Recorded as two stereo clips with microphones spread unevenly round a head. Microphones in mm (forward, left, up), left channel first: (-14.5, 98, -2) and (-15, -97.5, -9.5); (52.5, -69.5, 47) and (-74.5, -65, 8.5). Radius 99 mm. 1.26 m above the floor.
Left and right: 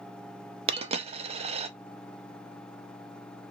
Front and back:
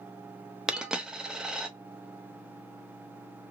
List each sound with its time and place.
0.7 s a dropped coin: 70° right, 0.5 m